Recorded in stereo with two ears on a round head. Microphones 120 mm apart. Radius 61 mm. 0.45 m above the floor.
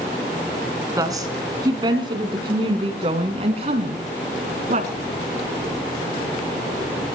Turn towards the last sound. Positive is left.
turn(degrees=-60)  # may be behind; listen again after turning